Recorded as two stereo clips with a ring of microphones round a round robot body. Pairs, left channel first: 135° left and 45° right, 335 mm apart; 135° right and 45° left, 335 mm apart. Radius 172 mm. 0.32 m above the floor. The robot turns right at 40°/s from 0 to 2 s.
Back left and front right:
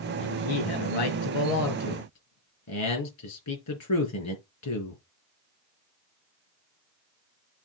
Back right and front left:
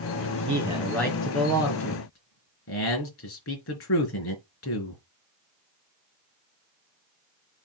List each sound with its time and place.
0.2 s a man speaking: 105° left, 3.5 m; by 5.0 s straight behind, 3.5 m